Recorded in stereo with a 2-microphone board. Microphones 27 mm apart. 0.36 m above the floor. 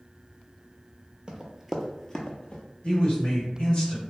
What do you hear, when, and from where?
1.3 s running footsteps: 35° right (ahead or behind), 0.6 m; by 2.6 s 45° left (ahead or behind), 0.7 m
2.8 s a man speaking: 45° left (ahead or behind), 1.2 m